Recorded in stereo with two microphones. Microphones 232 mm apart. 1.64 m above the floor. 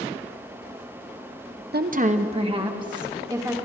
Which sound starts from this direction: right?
A woman speaking, at 1.7 s.